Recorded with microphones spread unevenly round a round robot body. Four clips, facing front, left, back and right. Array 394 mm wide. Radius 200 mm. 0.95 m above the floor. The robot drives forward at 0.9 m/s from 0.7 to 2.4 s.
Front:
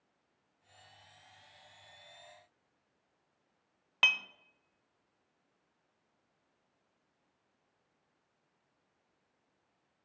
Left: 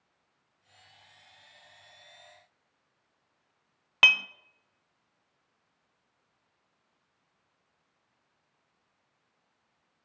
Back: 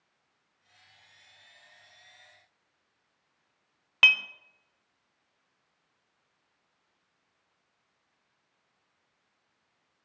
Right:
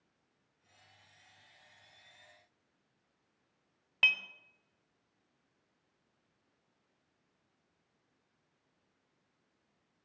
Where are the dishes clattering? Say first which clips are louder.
Left 8 dB, back 7 dB; 105° left, 0.6 m.